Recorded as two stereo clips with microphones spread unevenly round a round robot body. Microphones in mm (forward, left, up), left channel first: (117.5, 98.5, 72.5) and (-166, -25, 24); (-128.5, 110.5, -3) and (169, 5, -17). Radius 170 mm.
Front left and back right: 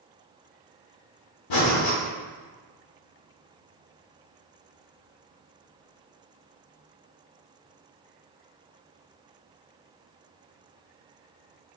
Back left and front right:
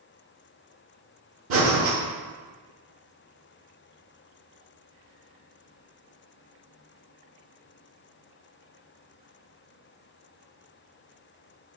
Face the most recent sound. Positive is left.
turn(degrees=30)